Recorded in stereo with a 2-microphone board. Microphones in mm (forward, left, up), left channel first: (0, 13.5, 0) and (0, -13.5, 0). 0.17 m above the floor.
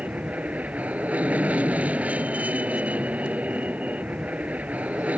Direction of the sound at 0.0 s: 60° right (ahead or behind).